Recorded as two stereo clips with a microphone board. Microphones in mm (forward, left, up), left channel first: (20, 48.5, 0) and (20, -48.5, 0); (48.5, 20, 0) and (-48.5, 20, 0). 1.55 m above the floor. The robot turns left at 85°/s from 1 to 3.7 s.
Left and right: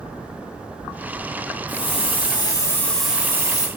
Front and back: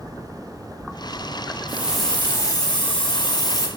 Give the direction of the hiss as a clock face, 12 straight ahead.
8 o'clock.